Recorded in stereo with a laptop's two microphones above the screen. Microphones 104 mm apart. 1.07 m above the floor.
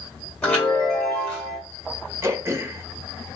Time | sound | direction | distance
0.4 | a chime | 15° left (ahead or behind) | 2 m
2.2 | throat clearing | 25° right (ahead or behind) | 1.0 m